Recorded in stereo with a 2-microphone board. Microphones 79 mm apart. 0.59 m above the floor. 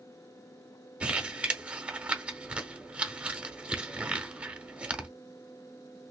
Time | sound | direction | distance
1.0 | crumpling | 15° right (ahead or behind) | 1.0 m